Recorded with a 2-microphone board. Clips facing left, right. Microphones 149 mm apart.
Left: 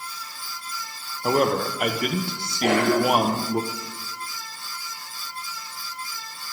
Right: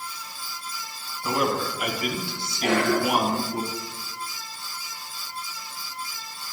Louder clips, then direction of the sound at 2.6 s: Left 3 dB; 75° left (ahead or behind).